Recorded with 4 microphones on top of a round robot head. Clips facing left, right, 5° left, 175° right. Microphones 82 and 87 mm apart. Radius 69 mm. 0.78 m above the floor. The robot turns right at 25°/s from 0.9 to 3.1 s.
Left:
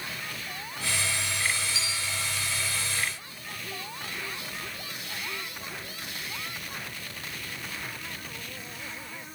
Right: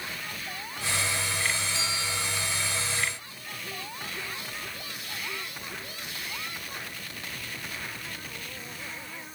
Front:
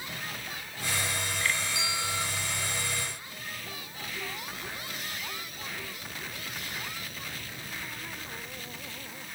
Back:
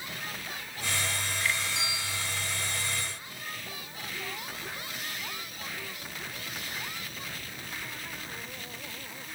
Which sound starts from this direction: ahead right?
A bell, at 1.8 s.